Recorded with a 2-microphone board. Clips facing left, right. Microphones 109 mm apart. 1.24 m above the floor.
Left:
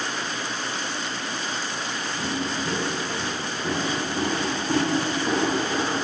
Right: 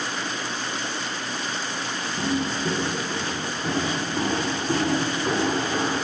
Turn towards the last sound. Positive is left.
turn(degrees=-15)  # may be behind; listen again after turning